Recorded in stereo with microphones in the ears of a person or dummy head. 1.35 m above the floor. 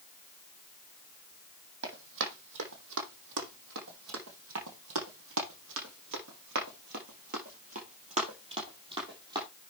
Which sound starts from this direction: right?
Running footsteps, at 1.8 s.